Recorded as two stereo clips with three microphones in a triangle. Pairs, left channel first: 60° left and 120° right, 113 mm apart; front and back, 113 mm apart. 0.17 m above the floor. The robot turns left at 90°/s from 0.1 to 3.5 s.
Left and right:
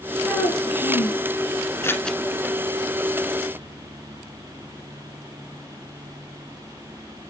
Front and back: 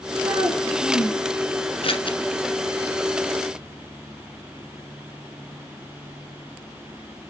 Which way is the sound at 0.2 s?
140° left.